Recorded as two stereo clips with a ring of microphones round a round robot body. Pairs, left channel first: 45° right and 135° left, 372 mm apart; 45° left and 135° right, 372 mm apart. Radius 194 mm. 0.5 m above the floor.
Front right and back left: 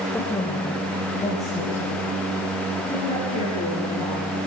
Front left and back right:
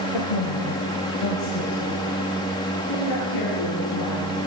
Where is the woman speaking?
40° left, 1.8 m; by 4.4 s 20° left, 7.5 m.